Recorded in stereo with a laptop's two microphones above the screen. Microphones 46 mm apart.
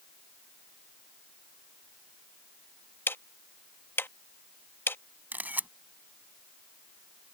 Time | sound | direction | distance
3.1 | ticking | 55° left (ahead or behind) | ?
5.3 | a camera shutter | 45° right (ahead or behind) | ?